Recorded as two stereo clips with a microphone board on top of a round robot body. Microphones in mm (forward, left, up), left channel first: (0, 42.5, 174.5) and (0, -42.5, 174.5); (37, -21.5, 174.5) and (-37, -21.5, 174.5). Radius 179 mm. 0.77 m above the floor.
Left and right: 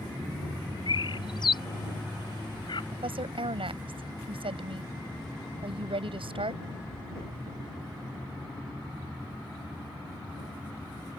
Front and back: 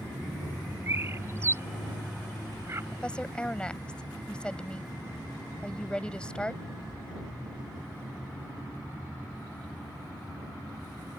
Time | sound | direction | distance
0.9 | a bird | 120° left | ?
2.9 | a woman speaking | 80° right | ?